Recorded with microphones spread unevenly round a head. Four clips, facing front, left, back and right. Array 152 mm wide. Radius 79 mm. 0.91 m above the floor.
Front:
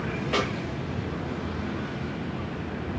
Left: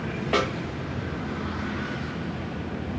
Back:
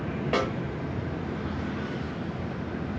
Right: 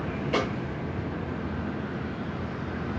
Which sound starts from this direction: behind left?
A snare drum, at 0.3 s.